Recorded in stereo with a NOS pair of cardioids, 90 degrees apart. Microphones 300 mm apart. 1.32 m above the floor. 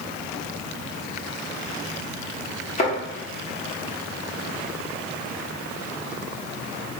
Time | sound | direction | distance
2.8 | a thud | 25° left | 1.8 m